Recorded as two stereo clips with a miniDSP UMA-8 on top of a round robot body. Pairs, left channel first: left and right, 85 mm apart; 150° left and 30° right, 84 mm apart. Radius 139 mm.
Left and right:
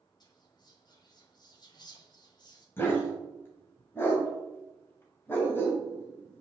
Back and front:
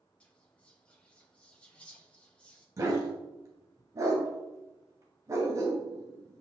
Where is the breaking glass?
No breaking glass in this recording.